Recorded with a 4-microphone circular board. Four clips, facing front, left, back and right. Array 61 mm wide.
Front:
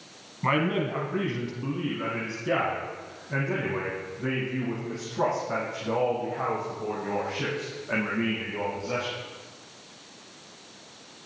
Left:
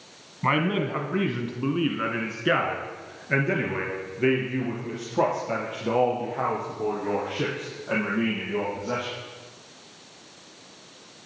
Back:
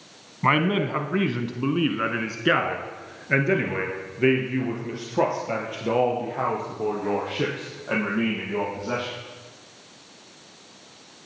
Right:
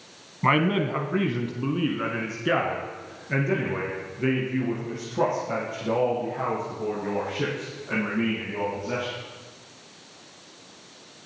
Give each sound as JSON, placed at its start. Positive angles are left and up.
{"t": 0.4, "sound": "a man speaking", "azimuth_deg": -150, "distance_m": 1.1}